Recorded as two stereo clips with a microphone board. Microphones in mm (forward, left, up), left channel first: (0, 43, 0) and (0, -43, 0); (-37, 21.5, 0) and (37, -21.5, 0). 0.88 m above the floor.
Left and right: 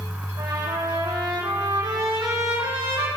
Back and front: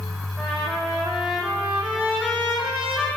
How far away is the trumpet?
About 5.5 m.